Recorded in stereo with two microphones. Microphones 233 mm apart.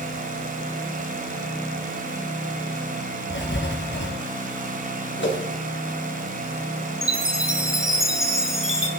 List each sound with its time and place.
3.3 s writing: 50° left (ahead or behind), 3 m
5.2 s a whoosh: 55° left (ahead or behind), 2.5 m
7.0 s a chime: 60° right (ahead or behind), 1.9 m